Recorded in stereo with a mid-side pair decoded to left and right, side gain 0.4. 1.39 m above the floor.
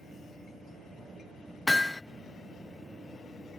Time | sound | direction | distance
1.7 | hammering | 15° left | 0.6 m